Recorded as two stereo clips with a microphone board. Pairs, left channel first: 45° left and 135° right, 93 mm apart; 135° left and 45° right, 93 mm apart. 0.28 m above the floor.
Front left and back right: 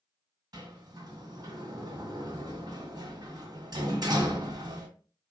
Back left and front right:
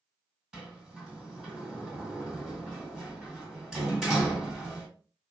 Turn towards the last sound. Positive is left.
turn(degrees=-130)